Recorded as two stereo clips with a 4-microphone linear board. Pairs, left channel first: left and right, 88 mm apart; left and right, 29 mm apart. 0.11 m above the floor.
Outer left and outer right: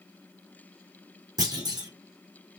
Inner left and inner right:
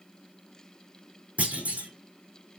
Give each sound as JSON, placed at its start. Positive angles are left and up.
{"t": 1.4, "sound": "a clunk", "side_deg": -50, "distance_m": 4.0}